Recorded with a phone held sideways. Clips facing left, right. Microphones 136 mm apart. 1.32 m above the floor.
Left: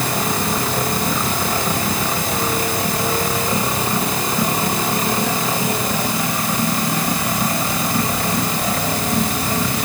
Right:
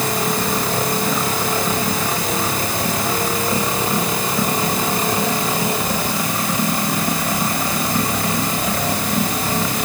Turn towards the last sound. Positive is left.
No sound to turn to.